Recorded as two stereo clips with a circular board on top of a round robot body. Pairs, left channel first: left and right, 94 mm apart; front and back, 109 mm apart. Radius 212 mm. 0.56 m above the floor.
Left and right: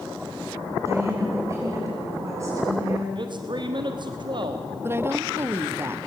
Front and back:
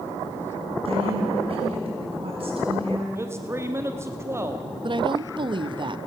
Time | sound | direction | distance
0.8 | a woman speaking | 150° right | 8.5 m
3.1 | a man speaking | 115° right | 1.5 m
4.8 | a woman speaking | 150° right | 1.2 m